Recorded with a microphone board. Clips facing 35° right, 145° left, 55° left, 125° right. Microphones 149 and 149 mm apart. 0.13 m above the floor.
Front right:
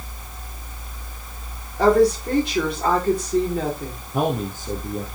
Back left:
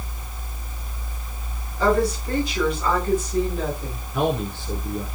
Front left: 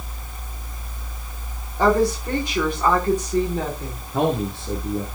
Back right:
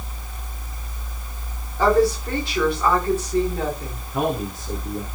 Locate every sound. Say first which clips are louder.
1.8 s a woman speaking: front right 5 dB, back right 1 dB; 15° right, 9.5 m
4.1 s a man speaking: even, front left 2 dB; straight ahead, 3 m